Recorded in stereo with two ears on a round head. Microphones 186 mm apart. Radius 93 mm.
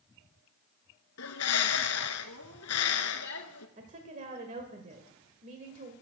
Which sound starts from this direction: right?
A woman speaking, at 3.8 s.